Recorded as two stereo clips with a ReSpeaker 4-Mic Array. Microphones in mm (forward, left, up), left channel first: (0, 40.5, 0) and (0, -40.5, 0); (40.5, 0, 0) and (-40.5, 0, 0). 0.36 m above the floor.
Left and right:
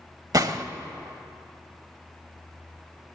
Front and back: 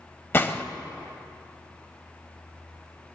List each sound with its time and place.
0.3 s a gunshot: 60° right, 0.8 m